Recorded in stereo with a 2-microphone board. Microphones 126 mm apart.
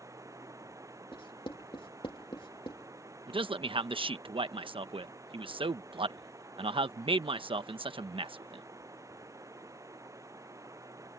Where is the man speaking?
45° right (ahead or behind).